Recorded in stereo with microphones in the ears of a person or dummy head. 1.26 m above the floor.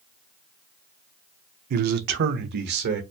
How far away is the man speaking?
About 0.6 m.